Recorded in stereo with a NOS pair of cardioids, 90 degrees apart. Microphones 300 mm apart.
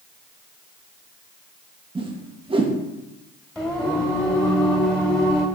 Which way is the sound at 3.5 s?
5° left.